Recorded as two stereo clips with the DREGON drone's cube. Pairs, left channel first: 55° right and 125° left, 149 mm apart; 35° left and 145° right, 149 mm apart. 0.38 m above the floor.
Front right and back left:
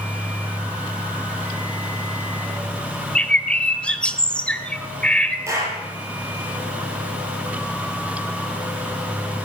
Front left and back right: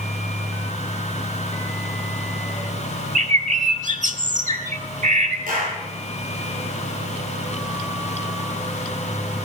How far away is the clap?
About 7 m.